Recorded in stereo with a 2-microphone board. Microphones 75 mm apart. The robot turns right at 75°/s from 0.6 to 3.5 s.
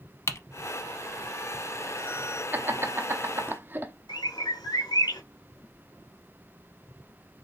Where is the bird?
70° left (ahead or behind), 1.4 m.